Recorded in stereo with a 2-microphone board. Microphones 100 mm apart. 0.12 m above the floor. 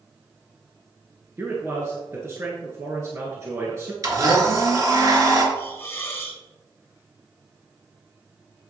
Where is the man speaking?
30° right (ahead or behind), 1.8 m.